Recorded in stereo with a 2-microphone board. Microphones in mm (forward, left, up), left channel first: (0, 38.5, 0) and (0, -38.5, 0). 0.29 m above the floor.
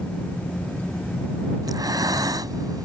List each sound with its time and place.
1.6 s breathing: 60° right (ahead or behind)